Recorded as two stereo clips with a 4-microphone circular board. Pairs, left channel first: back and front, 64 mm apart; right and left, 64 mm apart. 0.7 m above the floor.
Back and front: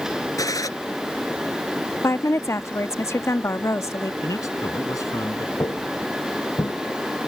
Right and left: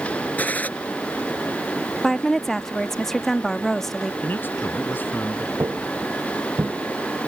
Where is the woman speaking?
175° right.